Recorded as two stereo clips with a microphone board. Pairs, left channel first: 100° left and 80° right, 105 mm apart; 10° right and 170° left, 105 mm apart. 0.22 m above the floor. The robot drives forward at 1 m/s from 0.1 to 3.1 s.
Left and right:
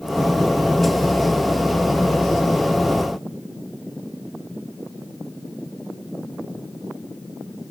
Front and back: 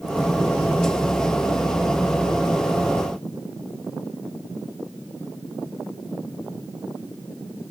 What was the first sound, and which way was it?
Only background noise.